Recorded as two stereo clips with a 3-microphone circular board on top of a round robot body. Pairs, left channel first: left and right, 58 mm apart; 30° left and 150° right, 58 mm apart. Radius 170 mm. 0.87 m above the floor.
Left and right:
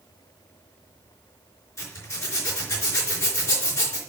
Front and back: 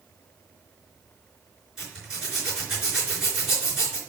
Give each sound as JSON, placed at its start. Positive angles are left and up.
{"t": 1.8, "sound": "a zipper", "azimuth_deg": 130, "distance_m": 4.5}